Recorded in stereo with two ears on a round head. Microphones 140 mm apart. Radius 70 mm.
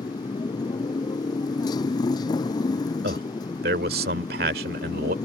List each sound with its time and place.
0.0 s a motorcycle: 25° left (ahead or behind)
3.0 s a man speaking: 65° right (ahead or behind)